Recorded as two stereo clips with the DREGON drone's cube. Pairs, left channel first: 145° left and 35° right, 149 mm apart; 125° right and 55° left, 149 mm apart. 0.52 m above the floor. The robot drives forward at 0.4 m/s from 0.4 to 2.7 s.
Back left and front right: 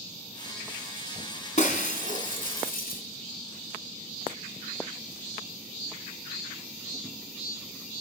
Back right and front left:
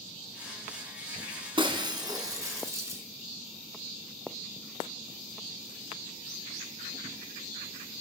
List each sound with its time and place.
1.6 s breaking glass: 115° left, 1.4 m; by 3.0 s 130° left, 1.7 m